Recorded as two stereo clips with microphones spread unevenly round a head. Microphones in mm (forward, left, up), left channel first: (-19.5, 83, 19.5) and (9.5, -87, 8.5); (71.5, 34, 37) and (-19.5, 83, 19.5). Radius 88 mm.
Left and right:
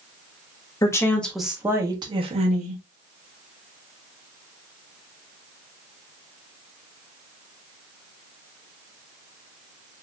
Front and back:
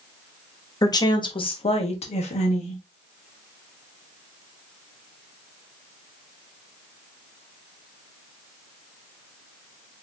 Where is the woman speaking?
30° left, 1.4 m; by 2.8 s 40° right, 1.7 m.